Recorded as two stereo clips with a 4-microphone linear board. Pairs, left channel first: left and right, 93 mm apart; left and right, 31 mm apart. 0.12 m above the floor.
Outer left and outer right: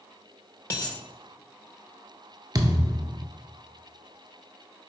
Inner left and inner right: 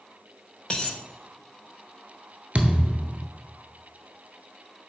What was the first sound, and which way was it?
A dropped coin, 35° left (ahead or behind).